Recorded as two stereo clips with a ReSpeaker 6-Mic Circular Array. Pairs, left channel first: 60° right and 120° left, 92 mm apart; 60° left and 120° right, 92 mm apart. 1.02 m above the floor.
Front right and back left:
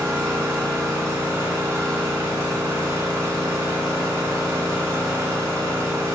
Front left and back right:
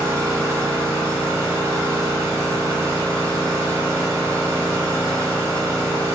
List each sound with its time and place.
0.0 s an engine running: straight behind, 1.5 m